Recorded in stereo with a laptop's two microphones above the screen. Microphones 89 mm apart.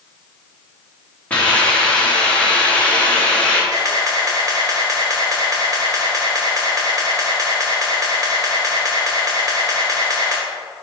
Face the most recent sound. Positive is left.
turn(degrees=-40)  # may be behind; listen again after turning